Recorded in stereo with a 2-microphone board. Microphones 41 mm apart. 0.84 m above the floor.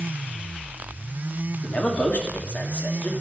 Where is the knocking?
I don't hear knocking.